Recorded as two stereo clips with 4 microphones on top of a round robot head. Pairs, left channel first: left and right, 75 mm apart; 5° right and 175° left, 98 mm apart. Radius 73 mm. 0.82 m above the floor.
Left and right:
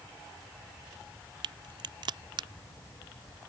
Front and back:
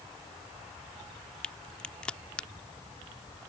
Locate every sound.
1.4 s a crack: 85° right